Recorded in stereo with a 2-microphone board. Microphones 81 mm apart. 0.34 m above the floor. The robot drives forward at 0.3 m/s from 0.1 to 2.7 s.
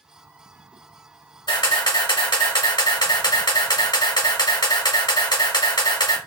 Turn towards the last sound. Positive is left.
turn(degrees=85)